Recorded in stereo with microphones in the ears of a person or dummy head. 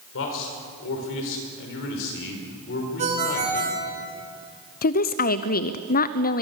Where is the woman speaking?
45° left (ahead or behind), 0.7 m.